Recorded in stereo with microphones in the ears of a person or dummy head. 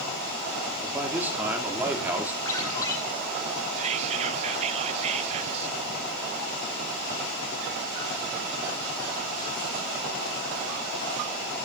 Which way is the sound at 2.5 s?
25° left (ahead or behind).